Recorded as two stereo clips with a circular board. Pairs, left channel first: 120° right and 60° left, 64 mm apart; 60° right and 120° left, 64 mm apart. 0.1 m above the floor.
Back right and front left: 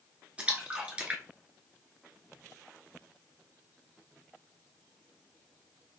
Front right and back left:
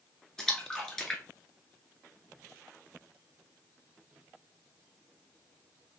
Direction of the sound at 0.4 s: 10° left.